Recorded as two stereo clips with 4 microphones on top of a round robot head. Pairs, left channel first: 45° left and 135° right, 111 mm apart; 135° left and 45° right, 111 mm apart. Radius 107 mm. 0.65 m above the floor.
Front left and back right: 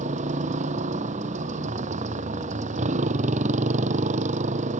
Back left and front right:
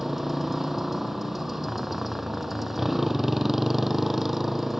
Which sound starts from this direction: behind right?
A motorcycle, at 0.0 s.